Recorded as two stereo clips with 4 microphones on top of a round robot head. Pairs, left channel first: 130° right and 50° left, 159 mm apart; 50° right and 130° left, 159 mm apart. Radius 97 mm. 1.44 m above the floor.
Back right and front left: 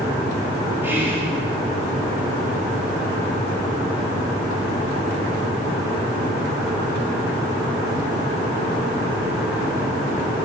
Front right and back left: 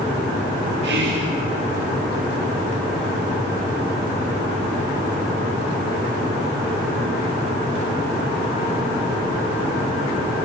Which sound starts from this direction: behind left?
Whispering, at 0.8 s.